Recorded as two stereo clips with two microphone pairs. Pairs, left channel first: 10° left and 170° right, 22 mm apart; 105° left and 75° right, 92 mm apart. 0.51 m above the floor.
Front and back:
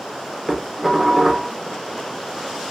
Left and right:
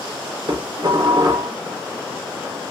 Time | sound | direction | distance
0.5 | dishes clattering | 95° right | 0.6 m